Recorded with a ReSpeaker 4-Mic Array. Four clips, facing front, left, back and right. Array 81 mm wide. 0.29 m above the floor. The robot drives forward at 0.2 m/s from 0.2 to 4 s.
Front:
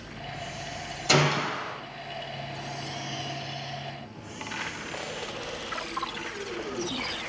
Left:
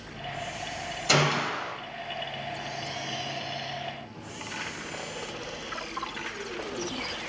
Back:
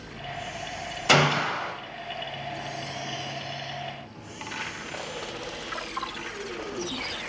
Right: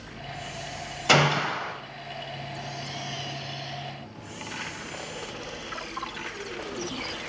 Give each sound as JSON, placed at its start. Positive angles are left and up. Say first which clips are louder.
{"t": 1.1, "sound": "a gunshot", "louder": "right 3 dB, back 3 dB", "azimuth_deg": -135, "distance_m": 0.5}